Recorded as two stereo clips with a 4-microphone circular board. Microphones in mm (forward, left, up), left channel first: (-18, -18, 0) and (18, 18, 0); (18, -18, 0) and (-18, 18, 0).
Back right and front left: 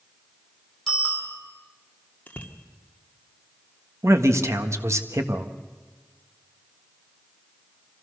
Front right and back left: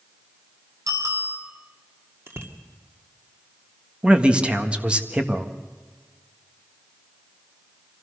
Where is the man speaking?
65° left, 1.5 m.